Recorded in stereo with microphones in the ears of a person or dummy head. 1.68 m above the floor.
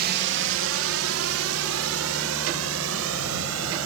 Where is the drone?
55° right (ahead or behind); by 3.9 s 75° right (ahead or behind).